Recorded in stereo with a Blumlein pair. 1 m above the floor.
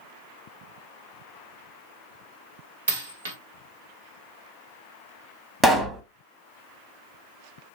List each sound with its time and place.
2.9 s a dropped coin: 60° right, 1.3 m
5.6 s a pop: 10° right, 0.9 m